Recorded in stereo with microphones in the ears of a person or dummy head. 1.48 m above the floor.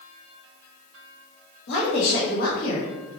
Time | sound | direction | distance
1.7 | a woman speaking | 60° left (ahead or behind) | 1.4 m